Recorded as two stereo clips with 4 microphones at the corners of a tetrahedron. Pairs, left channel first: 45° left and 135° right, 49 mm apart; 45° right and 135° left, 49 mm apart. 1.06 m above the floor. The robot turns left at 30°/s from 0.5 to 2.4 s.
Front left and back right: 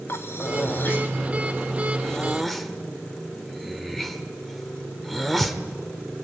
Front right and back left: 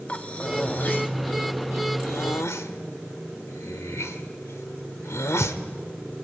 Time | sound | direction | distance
0.1 | breathing | 15° left | 1.5 m